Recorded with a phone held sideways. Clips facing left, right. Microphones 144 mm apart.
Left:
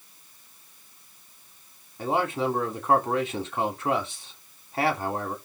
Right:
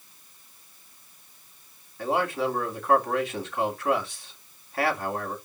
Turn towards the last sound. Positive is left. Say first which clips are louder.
# even
turn(degrees=25)  # may be behind; listen again after turning